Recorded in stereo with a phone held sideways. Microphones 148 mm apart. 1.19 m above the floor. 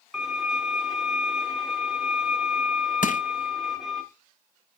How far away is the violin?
About 1.8 m.